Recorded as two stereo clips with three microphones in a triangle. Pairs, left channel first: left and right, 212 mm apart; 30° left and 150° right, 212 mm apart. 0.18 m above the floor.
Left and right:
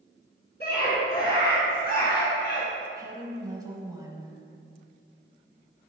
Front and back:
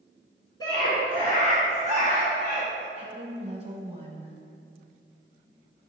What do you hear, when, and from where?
0.6 s a scream: 95° left, 1.9 m; by 2.9 s 55° left, 2.5 m
3.0 s a woman speaking: 150° right, 1.1 m